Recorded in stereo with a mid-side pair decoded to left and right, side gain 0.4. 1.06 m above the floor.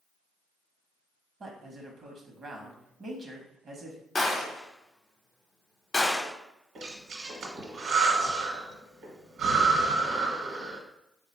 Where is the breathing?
70° right, 1.3 m.